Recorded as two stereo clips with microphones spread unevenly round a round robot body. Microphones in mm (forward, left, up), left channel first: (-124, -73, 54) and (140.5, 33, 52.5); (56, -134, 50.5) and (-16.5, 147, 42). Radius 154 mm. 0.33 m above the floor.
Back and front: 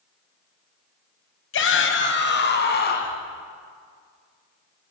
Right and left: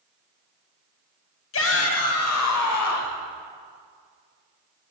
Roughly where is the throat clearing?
No throat clearing in this recording.